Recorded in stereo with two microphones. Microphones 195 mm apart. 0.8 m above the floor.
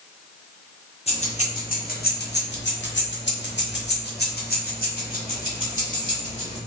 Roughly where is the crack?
I don't hear a crack.